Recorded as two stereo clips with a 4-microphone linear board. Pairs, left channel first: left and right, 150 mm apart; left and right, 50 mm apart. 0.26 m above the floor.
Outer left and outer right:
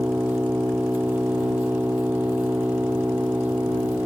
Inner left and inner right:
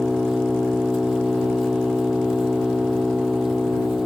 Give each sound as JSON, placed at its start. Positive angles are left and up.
{"t": 0.0, "sound": "an engine running", "side_deg": -10}